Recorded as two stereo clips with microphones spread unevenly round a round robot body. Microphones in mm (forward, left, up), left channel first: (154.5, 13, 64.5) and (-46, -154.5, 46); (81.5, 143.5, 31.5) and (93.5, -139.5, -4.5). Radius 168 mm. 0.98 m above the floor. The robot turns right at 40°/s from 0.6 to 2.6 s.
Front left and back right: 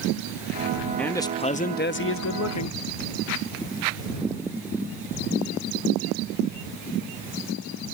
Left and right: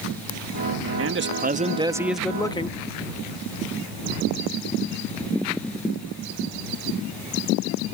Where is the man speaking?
45° right; by 2.8 s 15° left.